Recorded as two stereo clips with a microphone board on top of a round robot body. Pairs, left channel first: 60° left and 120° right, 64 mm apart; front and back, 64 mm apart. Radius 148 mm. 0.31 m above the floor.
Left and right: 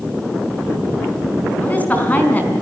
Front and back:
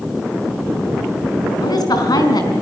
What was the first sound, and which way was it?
A woman speaking, 5° right.